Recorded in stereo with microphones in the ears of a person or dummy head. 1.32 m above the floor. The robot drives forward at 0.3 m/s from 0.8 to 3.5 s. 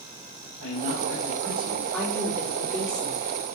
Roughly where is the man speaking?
Right.